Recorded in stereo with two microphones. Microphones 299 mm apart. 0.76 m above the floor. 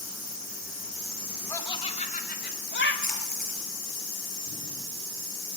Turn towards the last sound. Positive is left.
turn(degrees=-80)